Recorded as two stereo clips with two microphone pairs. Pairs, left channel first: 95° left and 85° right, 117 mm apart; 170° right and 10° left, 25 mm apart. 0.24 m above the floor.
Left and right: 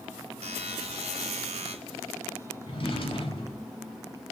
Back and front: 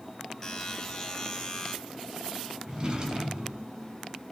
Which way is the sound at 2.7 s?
70° left.